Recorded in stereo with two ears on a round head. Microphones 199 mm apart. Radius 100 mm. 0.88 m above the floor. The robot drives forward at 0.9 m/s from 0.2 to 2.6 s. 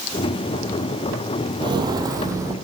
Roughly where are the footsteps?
Right.